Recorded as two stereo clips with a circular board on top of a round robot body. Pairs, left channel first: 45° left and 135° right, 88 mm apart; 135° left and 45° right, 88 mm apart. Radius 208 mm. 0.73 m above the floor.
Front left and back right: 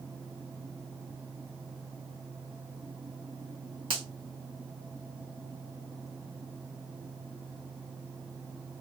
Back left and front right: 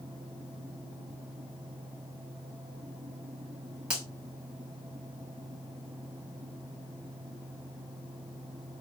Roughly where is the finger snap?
Behind right.